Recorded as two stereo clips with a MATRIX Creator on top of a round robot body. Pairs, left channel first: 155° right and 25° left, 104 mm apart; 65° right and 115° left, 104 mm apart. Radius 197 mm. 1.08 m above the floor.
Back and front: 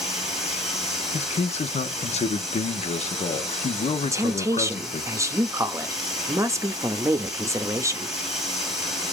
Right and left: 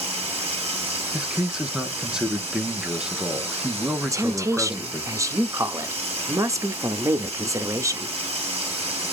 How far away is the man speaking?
About 0.7 m.